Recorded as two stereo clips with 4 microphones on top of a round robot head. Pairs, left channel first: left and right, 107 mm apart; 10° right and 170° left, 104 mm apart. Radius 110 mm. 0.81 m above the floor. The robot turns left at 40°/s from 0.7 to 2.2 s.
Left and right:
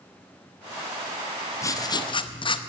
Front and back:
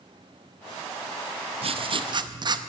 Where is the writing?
150° left, 0.8 m; by 2.6 s 130° left, 0.8 m.